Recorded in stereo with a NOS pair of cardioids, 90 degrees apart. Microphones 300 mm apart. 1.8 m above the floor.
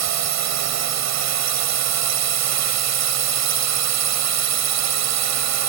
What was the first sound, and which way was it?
A drone, 65° right.